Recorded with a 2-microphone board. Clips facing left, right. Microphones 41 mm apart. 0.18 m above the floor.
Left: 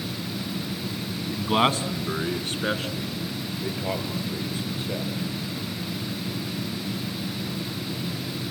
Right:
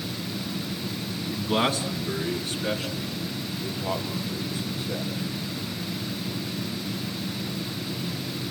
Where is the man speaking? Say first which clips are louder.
Left 3 dB; 20° left (ahead or behind), 1.6 m; by 5.1 s 40° left (ahead or behind), 5.5 m.